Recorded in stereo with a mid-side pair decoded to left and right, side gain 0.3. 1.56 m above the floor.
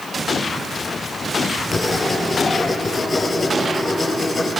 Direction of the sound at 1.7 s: 45° left.